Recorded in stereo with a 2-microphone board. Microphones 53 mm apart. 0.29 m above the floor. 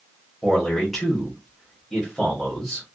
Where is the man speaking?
5° left (ahead or behind), 1.0 m.